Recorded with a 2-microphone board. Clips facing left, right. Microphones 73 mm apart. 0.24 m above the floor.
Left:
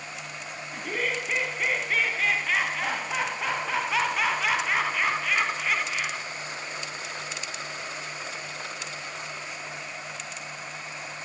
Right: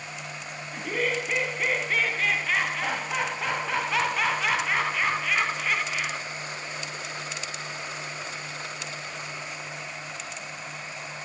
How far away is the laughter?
About 1.6 m.